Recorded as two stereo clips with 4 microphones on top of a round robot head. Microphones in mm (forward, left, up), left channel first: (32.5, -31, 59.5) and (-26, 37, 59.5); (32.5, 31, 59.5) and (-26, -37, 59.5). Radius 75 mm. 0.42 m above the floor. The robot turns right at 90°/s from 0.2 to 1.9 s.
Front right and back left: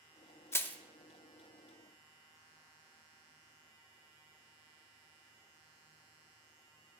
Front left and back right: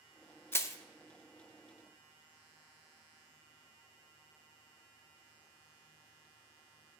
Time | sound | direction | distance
0.5 | crushing | 5° right | 0.6 m